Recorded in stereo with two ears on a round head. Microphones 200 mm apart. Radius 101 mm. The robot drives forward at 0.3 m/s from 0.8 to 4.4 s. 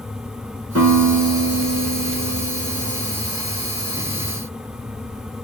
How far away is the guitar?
About 4.5 m.